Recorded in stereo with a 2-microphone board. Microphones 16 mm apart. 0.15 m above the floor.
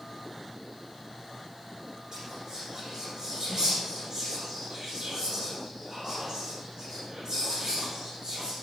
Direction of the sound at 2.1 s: 55° right (ahead or behind).